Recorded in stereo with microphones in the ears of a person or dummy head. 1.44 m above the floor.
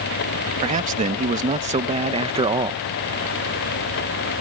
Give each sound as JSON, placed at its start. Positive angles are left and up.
{"t": 0.6, "sound": "a man speaking", "side_deg": -35}